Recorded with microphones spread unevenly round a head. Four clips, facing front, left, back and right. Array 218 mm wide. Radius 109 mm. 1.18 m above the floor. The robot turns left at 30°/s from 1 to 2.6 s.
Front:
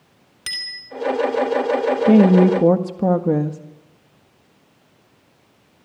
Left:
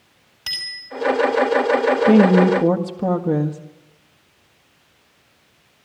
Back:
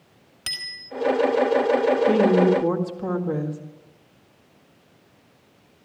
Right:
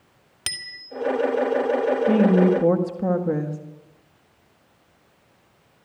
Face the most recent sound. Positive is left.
turn(degrees=15)